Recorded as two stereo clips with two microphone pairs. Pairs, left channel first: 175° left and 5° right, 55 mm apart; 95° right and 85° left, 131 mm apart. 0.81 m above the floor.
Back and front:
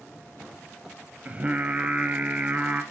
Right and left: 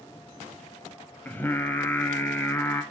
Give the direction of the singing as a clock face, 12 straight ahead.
1 o'clock.